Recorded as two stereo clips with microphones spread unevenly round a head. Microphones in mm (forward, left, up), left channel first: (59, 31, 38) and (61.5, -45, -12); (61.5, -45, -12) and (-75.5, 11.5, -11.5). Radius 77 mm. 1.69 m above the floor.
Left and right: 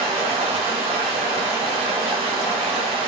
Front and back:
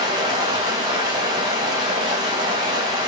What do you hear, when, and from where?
0.0 s running water: 155° right, 0.8 m